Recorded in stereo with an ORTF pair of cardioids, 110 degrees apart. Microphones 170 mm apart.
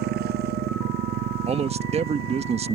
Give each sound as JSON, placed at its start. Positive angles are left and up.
{"t": 0.0, "sound": "a motorcycle", "azimuth_deg": -70}
{"t": 1.5, "sound": "a man speaking", "azimuth_deg": -40}